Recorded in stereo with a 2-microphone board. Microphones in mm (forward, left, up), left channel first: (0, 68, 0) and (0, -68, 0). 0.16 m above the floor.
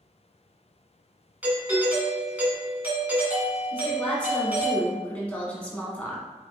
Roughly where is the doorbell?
Centre.